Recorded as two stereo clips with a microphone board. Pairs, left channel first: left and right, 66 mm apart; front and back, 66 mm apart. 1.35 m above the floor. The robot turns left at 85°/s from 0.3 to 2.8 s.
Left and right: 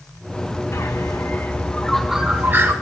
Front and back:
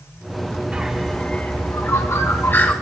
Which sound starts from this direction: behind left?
A bird, at 0.7 s.